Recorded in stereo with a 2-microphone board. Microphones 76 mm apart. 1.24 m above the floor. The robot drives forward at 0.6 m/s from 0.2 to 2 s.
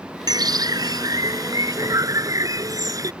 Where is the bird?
65° right (ahead or behind); by 3.1 s 50° right (ahead or behind).